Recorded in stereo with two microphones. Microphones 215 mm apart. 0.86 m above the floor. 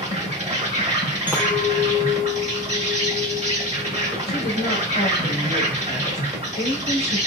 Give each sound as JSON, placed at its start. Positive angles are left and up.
{"t": 0.0, "sound": "an insect", "side_deg": -30, "distance_m": 1.0}
{"t": 1.3, "sound": "a clink", "side_deg": -10, "distance_m": 1.0}
{"t": 4.3, "sound": "a woman speaking", "side_deg": 50, "distance_m": 1.1}